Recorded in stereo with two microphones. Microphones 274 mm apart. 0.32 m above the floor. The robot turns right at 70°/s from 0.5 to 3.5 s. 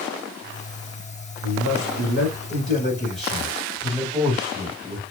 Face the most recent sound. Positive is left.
turn(degrees=-160)